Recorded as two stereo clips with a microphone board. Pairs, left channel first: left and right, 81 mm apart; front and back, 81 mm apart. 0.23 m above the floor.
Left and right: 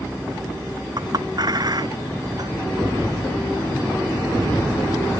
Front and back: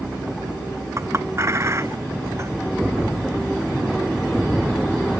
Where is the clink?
125° right.